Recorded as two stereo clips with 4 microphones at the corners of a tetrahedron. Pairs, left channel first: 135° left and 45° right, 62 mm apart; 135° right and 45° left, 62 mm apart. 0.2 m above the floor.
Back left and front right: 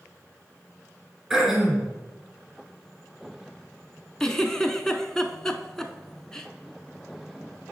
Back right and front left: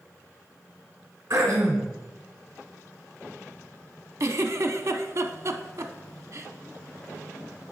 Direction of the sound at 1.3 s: 45° left.